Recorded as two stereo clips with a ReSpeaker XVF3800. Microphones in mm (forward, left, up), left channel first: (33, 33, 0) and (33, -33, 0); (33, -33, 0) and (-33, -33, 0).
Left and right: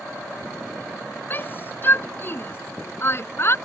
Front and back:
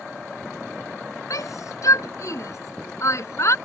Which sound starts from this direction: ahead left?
A shout, at 1.3 s.